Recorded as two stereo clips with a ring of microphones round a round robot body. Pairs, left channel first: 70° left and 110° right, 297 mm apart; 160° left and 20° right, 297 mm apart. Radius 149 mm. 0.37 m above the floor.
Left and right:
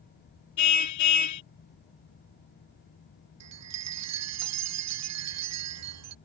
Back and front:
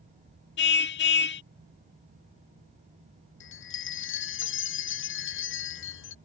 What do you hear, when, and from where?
0.6 s a car horn: 100° left
3.4 s a chime: 150° right